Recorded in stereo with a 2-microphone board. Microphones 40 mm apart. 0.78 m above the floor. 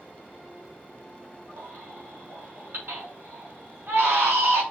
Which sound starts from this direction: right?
A baby crying, at 1.6 s.